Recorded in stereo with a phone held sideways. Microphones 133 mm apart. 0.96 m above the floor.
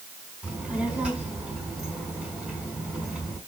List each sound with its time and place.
0.4 s a child speaking: 10° right (ahead or behind), 6 m